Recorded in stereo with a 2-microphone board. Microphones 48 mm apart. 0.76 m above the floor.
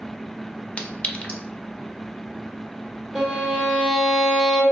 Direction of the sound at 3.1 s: 10° left (ahead or behind).